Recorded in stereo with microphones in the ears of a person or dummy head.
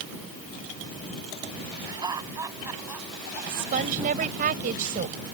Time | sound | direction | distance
1.8 | laughter | 20° right (ahead or behind) | ?
3.5 | a woman speaking | 50° right (ahead or behind) | ?